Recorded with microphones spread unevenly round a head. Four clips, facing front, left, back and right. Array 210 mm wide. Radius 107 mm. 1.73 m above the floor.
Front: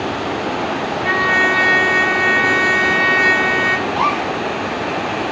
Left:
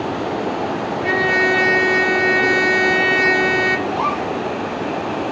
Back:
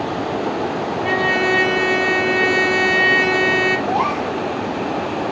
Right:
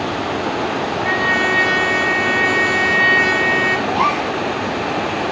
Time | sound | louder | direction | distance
1.0 | a trumpet | left 3 dB, front 2 dB | 145° left | 0.8 m
3.9 | a gasp | right 3 dB, front 1 dB | 150° right | 3 m